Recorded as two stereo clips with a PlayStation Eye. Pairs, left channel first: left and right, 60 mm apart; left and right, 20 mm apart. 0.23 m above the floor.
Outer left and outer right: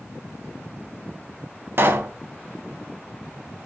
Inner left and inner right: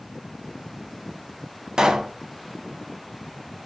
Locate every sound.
1.8 s a pop: 35° right (ahead or behind), 0.5 m